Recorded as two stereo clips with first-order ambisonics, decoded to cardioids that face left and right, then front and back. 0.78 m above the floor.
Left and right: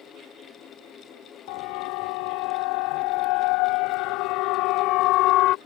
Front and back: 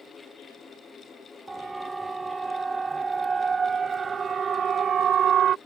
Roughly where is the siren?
Left.